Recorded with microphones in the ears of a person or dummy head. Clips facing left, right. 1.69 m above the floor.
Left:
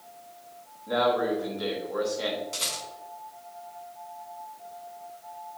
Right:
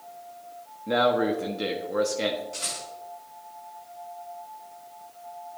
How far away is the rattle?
About 4 m.